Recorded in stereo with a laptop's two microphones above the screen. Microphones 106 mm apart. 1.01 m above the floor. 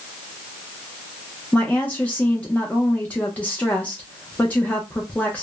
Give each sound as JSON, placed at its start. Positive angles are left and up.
{"t": 1.5, "sound": "a woman speaking", "side_deg": 15, "distance_m": 0.6}